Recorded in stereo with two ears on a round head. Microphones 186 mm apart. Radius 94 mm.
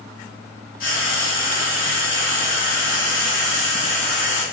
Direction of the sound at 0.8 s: 45° left (ahead or behind).